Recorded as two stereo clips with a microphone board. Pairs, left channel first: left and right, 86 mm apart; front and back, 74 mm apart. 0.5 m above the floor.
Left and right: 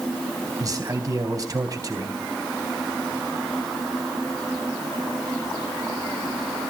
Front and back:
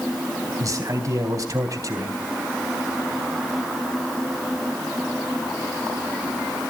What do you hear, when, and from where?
0.6 s a man speaking: 140° right, 3.5 m